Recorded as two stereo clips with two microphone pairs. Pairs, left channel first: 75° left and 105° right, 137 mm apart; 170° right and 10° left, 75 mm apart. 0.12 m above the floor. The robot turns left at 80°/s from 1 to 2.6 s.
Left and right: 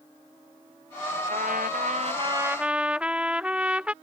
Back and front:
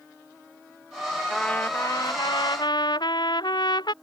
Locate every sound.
1.3 s a trumpet: 80° right; by 3.9 s 175° left